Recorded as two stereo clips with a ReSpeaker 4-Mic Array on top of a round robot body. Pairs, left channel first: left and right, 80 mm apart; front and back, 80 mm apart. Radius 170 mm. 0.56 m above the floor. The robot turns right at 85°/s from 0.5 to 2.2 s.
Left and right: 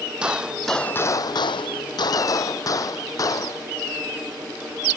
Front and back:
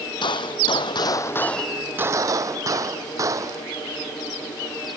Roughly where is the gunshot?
Ahead.